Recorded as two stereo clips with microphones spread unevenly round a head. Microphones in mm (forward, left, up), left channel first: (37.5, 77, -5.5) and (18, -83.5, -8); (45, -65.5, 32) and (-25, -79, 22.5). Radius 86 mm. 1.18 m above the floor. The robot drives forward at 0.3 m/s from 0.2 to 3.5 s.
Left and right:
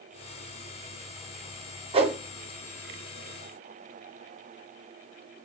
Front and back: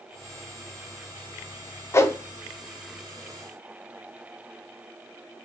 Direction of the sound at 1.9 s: 45° right.